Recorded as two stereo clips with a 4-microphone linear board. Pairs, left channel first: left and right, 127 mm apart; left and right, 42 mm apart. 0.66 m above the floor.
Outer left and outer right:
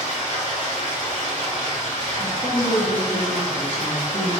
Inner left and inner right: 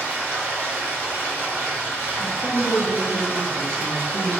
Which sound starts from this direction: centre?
A woman speaking, at 2.2 s.